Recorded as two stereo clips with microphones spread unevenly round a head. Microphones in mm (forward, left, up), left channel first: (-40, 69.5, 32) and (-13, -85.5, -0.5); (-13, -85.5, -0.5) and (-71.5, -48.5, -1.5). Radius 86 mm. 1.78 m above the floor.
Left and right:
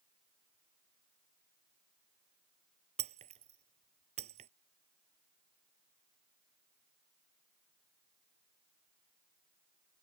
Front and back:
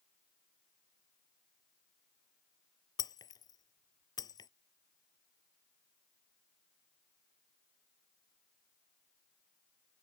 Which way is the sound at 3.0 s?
20° right.